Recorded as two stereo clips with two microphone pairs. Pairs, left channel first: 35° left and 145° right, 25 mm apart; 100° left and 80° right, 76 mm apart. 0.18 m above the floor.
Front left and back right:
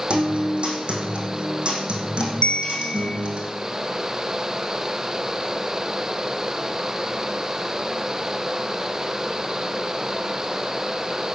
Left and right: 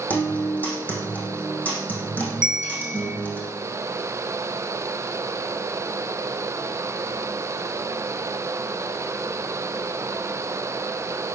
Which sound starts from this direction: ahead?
A bell, at 2.4 s.